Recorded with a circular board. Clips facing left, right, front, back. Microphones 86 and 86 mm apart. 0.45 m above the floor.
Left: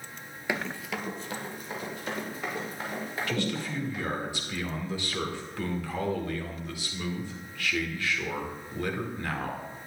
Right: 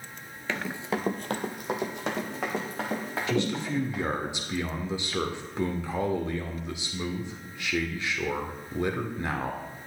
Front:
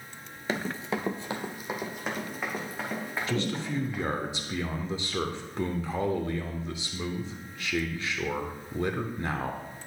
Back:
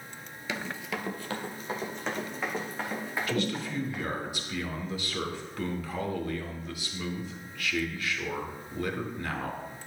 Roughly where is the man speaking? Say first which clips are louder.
Right 5 dB, front 1 dB; ahead right.